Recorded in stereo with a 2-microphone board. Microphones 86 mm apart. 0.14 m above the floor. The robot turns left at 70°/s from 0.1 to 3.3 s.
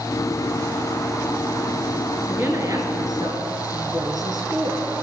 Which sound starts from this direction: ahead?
A woman speaking, at 2.3 s.